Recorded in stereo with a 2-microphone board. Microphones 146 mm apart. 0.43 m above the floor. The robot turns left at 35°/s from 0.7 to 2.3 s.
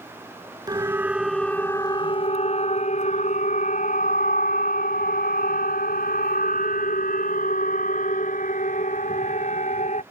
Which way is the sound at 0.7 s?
25° right (ahead or behind).